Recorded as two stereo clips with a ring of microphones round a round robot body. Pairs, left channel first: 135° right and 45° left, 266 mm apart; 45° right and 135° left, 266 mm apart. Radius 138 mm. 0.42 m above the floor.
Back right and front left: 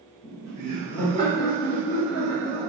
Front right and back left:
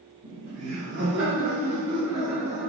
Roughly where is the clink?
I don't hear a clink.